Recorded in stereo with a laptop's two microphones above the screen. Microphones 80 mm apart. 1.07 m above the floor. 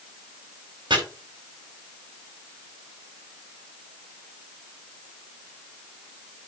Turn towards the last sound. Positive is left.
turn(degrees=-70)  # may be behind; listen again after turning